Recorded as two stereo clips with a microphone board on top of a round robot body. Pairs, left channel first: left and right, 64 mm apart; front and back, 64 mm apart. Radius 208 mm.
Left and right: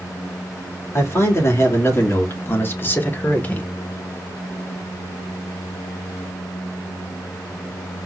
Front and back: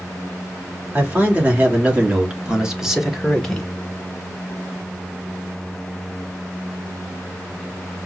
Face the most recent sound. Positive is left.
turn(degrees=70)